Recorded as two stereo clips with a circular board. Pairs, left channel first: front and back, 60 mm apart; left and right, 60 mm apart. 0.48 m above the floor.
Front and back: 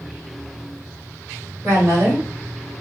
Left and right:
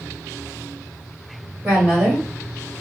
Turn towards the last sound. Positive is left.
turn(degrees=-160)